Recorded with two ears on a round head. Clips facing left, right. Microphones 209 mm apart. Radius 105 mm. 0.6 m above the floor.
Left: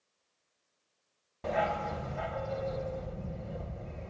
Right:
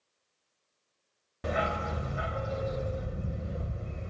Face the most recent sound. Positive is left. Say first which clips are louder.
# even
turn(degrees=-20)  # may be behind; listen again after turning